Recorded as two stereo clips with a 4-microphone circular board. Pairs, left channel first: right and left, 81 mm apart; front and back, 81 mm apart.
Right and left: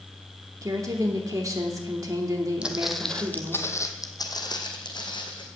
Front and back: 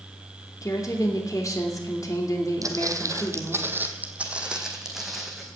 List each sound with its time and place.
0.6 s a woman speaking: 45° left, 2.5 m
2.6 s footsteps: 160° left, 1.3 m; by 5.5 s 90° right, 2.5 m